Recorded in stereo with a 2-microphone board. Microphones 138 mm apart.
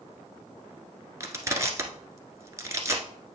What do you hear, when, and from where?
1.2 s crushing: 25° right (ahead or behind), 1.1 m